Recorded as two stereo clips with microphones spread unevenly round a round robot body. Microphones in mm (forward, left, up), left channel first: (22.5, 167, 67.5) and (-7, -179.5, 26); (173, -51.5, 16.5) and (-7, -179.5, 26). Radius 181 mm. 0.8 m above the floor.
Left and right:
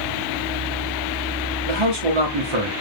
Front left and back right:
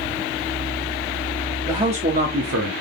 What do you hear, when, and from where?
1.7 s a man speaking: 65° right, 1.6 m; by 2.7 s 125° right, 1.5 m